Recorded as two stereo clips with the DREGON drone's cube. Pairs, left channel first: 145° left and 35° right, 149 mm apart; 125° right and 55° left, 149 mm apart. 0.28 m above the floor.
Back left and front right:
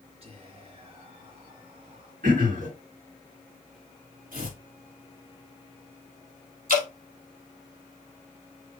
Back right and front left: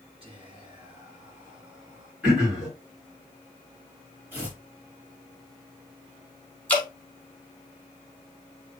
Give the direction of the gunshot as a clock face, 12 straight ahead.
No gunshot in this recording.